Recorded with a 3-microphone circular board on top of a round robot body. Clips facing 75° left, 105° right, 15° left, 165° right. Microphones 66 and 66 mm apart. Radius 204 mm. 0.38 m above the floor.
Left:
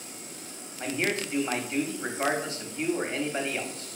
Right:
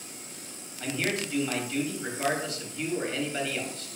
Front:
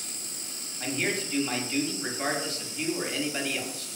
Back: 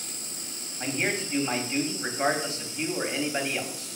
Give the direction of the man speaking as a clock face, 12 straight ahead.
8 o'clock.